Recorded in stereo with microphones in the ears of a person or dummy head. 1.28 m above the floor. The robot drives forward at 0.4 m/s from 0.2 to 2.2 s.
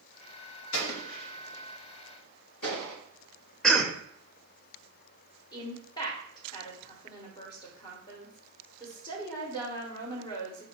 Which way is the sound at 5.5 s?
25° left (ahead or behind).